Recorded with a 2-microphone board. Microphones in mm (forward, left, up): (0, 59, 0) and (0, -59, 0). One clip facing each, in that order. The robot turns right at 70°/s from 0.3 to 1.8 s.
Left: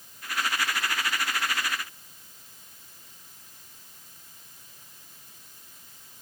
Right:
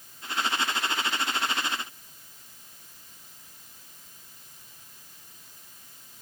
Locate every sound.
Only background noise.